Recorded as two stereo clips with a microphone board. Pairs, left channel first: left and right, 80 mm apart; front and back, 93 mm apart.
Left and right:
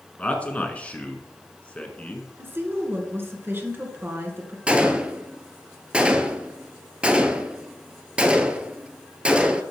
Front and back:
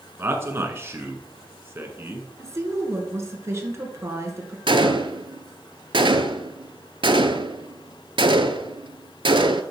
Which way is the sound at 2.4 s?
135° right.